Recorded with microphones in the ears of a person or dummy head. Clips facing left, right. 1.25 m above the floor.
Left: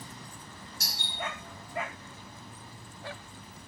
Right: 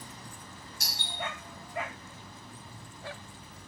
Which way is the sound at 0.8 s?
50° left (ahead or behind).